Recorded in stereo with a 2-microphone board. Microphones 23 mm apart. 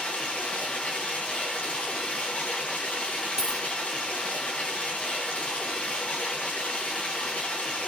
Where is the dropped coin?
25° left (ahead or behind), 1.8 m.